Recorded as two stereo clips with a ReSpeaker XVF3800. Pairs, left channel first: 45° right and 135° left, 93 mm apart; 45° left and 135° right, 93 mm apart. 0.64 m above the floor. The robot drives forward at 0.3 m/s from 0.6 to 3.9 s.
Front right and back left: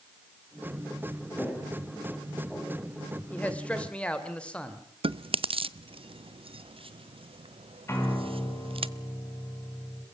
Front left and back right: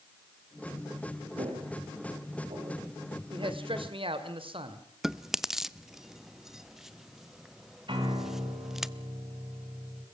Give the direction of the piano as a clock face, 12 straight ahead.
4 o'clock.